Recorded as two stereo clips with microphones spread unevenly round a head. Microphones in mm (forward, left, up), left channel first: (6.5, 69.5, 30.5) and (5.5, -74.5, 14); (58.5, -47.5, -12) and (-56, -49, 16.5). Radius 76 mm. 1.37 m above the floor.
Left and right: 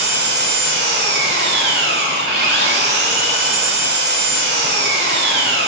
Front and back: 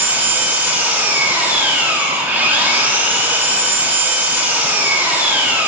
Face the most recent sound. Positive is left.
turn(degrees=-110)